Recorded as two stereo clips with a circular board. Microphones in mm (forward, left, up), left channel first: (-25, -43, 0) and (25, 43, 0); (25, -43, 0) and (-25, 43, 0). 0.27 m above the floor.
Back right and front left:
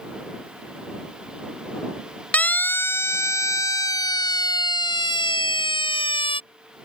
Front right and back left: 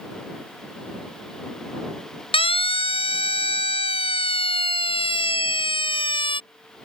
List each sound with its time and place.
2.3 s a siren: 45° right; by 6.4 s 90° right